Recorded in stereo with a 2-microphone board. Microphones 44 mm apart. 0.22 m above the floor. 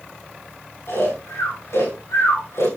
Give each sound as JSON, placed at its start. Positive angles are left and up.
{"t": 0.9, "sound": "snoring", "side_deg": 75, "distance_m": 9.0}